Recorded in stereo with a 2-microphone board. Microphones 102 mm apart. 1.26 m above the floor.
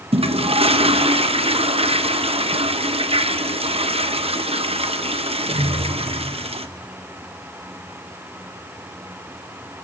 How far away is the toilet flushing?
About 0.8 m.